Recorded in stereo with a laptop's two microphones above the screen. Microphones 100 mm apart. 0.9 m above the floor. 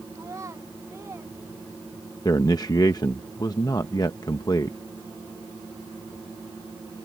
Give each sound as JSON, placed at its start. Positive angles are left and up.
{"t": 0.1, "sound": "a child speaking", "side_deg": -35}
{"t": 2.2, "sound": "a man speaking", "side_deg": 40}